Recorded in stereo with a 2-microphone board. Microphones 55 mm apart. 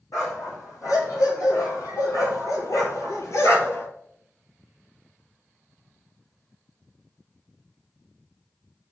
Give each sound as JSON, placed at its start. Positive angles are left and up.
{"t": 0.1, "sound": "a dog barking", "side_deg": 80, "distance_m": 2.5}